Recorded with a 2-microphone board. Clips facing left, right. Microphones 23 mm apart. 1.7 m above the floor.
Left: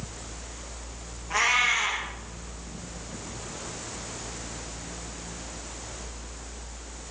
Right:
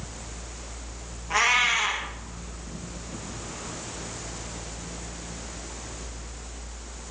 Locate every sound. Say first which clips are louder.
1.3 s a cat meowing: right 1 dB; 20° right (ahead or behind), 1.0 m